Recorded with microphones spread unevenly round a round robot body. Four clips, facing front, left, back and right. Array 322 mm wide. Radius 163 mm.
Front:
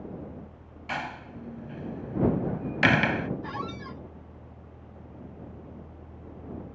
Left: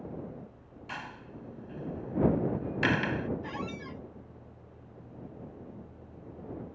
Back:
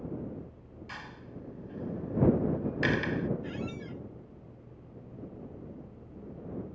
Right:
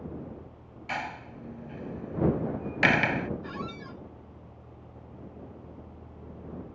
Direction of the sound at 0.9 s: 20° right.